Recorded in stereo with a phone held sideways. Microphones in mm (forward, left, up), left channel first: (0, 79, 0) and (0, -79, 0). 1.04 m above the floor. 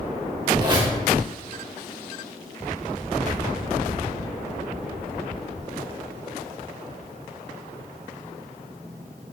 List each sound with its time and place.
0.6 s a squeak: 30° right (ahead or behind), 2 m